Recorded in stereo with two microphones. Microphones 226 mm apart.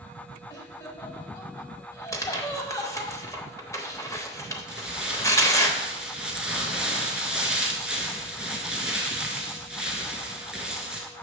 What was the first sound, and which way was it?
Laughter, 15° left (ahead or behind).